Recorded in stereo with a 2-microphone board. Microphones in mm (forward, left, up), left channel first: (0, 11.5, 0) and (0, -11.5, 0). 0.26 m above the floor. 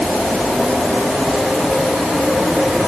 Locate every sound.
Only background noise.